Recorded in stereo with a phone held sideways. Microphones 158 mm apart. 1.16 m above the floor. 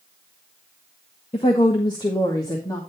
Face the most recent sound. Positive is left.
turn(degrees=20)  # may be behind; listen again after turning